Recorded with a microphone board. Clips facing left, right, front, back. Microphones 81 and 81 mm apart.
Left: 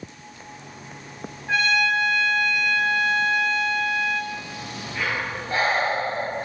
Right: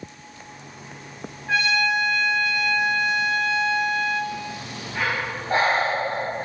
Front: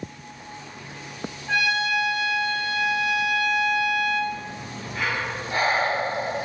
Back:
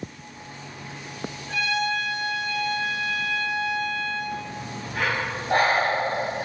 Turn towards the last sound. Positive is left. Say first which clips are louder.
# right 1 dB, back 1 dB
turn(degrees=-145)